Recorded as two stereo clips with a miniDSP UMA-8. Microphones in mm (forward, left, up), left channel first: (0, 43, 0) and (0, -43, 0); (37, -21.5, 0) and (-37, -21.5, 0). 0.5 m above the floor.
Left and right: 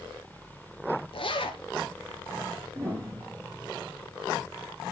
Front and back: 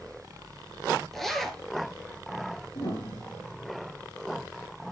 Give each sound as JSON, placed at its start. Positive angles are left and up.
{"t": 1.1, "sound": "a zipper", "azimuth_deg": 85, "distance_m": 1.5}
{"t": 2.8, "sound": "a piano", "azimuth_deg": -35, "distance_m": 3.5}